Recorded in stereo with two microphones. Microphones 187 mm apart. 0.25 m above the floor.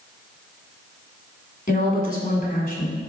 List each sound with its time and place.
1.7 s a woman speaking: 50° left (ahead or behind), 1.8 m